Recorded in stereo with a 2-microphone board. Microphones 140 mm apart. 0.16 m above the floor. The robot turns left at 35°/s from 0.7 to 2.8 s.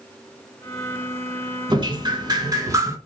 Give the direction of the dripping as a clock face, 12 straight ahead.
3 o'clock.